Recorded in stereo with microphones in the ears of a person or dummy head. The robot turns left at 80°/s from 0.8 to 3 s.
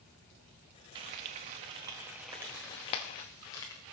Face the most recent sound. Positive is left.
turn(degrees=15)  # may be behind; listen again after turning